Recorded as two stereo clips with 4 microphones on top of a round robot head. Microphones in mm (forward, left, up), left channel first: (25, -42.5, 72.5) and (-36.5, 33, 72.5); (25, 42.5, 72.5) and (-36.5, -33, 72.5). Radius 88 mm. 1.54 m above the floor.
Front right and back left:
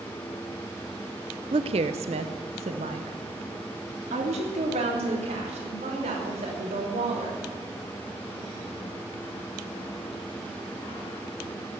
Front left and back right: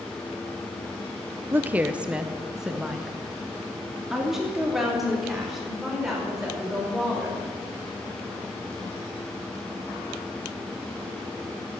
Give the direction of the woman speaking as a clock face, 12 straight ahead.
7 o'clock.